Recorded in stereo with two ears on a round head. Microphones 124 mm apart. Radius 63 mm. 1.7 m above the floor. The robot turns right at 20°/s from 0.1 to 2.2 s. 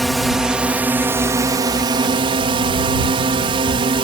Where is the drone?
Straight behind; by 4.0 s 140° right.